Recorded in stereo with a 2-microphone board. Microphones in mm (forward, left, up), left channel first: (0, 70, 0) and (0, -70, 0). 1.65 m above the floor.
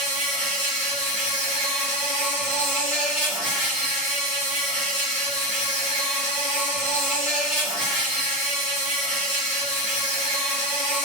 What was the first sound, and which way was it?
An insect, centre (ahead or behind).